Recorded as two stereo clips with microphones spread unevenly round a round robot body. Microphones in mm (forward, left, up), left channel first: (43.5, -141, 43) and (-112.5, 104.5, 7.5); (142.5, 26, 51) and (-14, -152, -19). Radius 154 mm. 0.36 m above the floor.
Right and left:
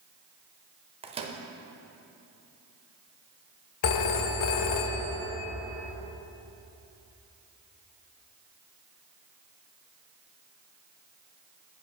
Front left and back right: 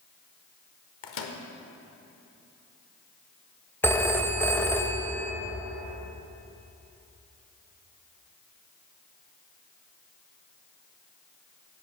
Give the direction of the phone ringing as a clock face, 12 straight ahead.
1 o'clock.